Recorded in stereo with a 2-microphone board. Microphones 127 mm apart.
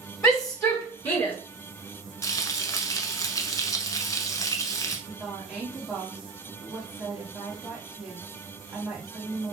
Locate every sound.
0.2 s a shout: 25° left (ahead or behind), 3.5 m; by 1.3 s 20° left (ahead or behind), 3.5 m
2.2 s frying: 25° left (ahead or behind), 0.8 m
5.1 s a woman speaking: 5° right (ahead or behind), 1.3 m